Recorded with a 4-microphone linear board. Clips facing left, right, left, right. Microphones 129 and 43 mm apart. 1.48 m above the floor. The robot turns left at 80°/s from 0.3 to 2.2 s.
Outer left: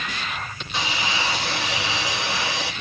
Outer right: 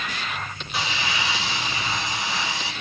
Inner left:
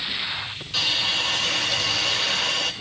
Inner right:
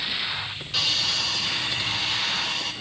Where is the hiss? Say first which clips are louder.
Outer left 1 dB, inner left 2 dB; 175° right, 6.5 m; by 2.7 s 65° left, 6.5 m.